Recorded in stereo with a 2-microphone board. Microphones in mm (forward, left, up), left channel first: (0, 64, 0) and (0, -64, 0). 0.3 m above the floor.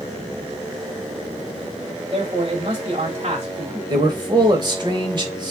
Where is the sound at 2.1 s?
45° right (ahead or behind), 1.5 m.